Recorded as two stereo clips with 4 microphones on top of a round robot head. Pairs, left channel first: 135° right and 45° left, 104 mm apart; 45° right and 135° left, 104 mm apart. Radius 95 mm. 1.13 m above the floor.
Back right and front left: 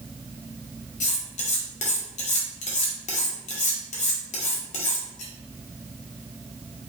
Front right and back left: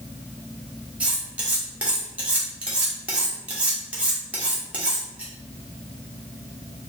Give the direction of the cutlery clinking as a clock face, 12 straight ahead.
5 o'clock.